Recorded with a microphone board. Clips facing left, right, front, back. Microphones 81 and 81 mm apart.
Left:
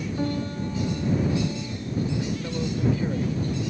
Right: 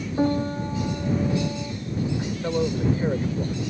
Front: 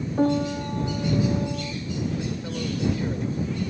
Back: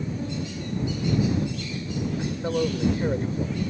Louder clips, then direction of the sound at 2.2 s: Right 4 dB, back 4 dB; 135° right.